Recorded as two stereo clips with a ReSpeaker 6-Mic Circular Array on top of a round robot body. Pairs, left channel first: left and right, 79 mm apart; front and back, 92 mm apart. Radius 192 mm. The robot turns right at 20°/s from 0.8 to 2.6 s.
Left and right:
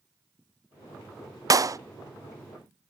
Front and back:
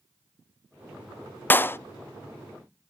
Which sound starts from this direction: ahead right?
A clap, at 1.5 s.